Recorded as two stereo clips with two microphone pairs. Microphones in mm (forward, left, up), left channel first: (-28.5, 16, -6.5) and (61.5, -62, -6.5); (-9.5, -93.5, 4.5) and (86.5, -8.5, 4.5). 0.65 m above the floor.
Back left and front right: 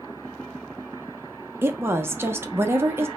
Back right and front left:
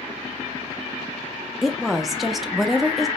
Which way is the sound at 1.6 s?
45° right.